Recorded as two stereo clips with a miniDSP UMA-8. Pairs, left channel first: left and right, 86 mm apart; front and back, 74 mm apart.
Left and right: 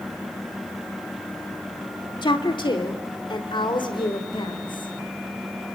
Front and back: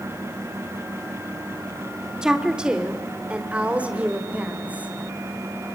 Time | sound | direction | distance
2.2 | a woman speaking | 100° left | 2 m